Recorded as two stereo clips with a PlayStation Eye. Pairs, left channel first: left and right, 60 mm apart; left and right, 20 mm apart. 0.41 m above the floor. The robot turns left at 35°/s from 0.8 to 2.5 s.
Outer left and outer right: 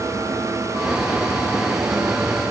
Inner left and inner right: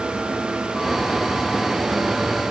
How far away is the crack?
I don't hear a crack.